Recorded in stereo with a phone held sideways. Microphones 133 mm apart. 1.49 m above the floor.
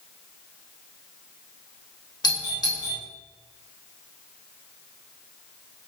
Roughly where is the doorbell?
Left.